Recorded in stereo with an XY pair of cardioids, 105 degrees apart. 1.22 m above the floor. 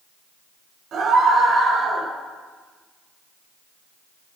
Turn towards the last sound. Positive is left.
turn(degrees=-55)